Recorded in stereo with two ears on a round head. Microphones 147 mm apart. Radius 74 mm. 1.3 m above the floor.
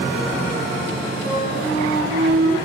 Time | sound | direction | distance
1.2 | a flute | 35° left (ahead or behind) | 7 m